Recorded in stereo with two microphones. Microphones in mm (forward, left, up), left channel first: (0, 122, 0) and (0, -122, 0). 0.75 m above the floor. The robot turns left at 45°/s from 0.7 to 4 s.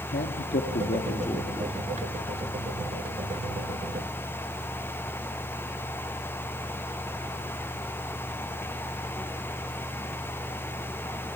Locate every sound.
0.1 s a man speaking: 55° left, 1.5 m; by 1.8 s 10° left, 1.5 m